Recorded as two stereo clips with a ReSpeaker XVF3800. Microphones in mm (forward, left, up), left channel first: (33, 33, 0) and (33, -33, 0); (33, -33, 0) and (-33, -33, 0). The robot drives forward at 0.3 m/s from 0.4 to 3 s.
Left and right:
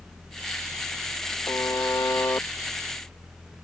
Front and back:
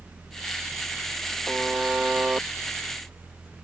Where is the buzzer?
85° left; by 3.6 s 125° left.